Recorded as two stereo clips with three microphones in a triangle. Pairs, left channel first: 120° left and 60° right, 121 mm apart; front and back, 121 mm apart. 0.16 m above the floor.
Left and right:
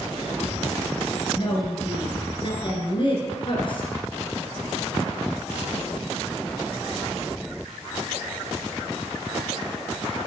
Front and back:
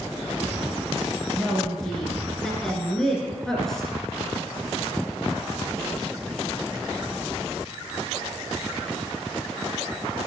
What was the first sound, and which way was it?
A woman speaking, 85° left.